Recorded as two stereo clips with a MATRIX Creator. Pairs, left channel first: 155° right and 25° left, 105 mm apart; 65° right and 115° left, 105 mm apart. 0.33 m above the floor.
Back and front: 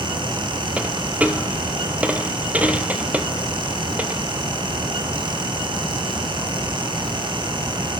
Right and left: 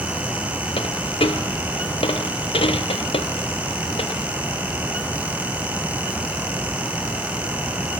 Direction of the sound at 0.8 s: 55° right.